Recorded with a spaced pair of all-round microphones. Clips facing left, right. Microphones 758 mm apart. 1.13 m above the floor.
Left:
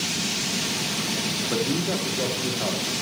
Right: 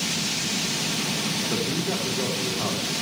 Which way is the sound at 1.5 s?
30° right (ahead or behind).